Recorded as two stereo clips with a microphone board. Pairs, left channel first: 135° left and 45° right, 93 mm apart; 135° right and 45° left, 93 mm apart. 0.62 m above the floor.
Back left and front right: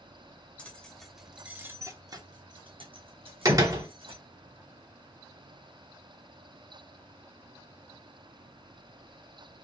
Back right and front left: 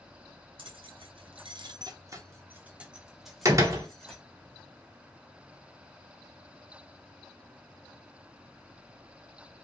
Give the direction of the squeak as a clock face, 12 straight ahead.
I don't hear a squeak.